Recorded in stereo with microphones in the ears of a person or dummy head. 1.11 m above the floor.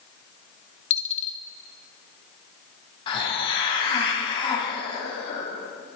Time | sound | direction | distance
0.9 | a dropped coin | 40° left (ahead or behind) | 0.9 m
3.1 | a hiss | 30° left (ahead or behind) | 2.5 m